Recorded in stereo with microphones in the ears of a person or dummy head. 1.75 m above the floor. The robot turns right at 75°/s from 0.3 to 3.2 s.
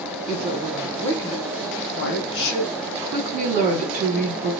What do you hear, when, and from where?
0.3 s a woman speaking: 50° right, 1.4 m; by 2.8 s 140° left, 1.4 m
2.9 s a woman speaking: 20° right (ahead or behind), 2.0 m; by 4.5 s 40° right (ahead or behind), 2.0 m